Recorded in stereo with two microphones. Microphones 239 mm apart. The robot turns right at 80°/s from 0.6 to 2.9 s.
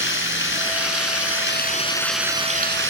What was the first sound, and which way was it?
Running water, 55° left.